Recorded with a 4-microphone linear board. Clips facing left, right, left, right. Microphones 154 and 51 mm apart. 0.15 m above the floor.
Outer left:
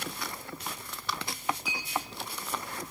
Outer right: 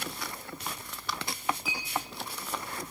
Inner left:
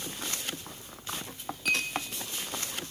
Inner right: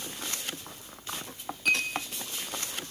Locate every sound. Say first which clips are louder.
1.6 s a clink: even, inner right 2 dB; centre (ahead or behind), 4 m